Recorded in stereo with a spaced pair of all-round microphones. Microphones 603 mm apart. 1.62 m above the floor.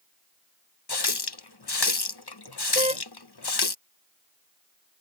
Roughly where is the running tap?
Left.